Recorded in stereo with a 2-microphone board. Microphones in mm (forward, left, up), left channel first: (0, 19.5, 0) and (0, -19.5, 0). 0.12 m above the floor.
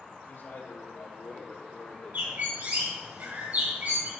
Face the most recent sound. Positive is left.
turn(degrees=-50)  # may be behind; listen again after turning